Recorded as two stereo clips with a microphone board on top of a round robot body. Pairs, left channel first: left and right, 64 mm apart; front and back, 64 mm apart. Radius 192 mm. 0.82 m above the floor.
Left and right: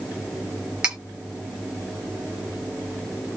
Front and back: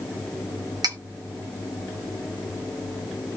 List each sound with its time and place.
0.8 s cutlery clinking: 170° right, 1.4 m